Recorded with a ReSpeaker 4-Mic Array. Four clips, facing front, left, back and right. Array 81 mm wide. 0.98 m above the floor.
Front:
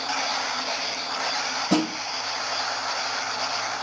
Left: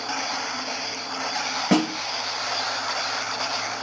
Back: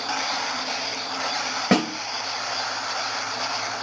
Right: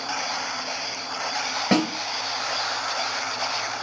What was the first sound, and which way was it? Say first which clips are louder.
A snare drum: left 1 dB, back 2 dB; 175° left.